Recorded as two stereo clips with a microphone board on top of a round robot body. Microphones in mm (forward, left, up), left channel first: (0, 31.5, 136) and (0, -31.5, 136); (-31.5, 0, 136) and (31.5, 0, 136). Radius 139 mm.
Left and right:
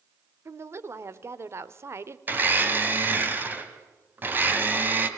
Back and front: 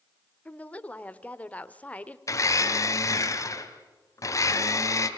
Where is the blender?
145° right, 2.5 m.